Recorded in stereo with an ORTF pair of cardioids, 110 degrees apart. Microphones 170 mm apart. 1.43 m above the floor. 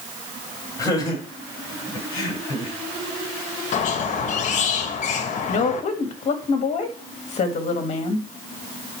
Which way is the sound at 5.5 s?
40° left.